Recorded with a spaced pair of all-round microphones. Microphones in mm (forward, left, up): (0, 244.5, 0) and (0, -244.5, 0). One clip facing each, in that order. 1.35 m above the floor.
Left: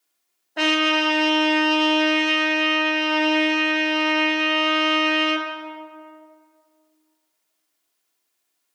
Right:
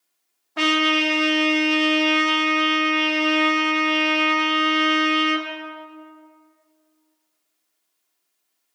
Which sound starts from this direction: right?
A trumpet, at 0.6 s.